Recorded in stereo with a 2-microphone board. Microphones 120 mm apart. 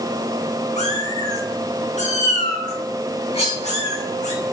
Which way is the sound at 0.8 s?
75° left (ahead or behind).